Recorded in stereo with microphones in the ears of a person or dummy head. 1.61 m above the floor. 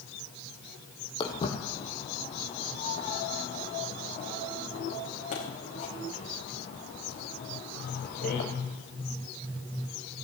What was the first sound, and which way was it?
Footsteps, 30° left (ahead or behind).